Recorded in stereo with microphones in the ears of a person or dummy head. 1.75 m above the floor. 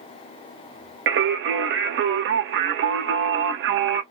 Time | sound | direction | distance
1.1 | singing | 60° right (ahead or behind) | 0.8 m